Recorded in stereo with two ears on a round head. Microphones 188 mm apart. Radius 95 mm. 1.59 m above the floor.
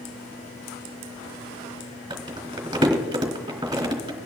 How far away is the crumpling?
About 2.5 m.